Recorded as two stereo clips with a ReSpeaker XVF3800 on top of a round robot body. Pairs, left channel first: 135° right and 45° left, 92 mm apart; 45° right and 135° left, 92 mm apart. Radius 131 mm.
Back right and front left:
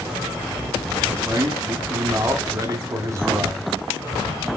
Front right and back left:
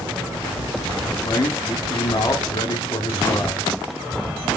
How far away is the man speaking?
About 1.7 m.